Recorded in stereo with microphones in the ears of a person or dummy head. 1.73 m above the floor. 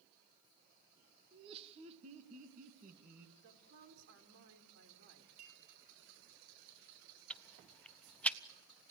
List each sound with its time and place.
1.3 s laughter: 30° right (ahead or behind), 2.0 m; by 3.3 s 50° right (ahead or behind), 2.5 m
3.4 s a woman speaking: 70° right (ahead or behind), 4.5 m
5.4 s a clink: 50° right (ahead or behind), 6.5 m
7.3 s ticking: 5° left (ahead or behind), 0.6 m